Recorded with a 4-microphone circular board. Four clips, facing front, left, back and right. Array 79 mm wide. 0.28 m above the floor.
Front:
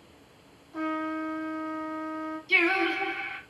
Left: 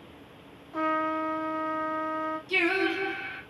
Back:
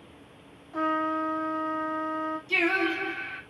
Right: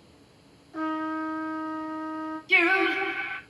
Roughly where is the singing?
Ahead right.